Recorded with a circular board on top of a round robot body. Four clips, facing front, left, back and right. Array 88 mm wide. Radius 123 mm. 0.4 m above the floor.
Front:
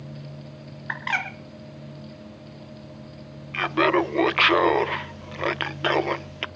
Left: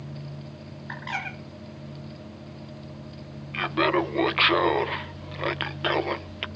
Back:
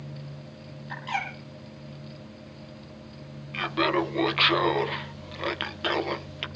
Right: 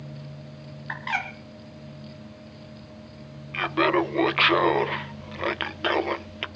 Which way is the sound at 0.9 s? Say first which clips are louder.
Right 3 dB, front 3 dB; 10° right.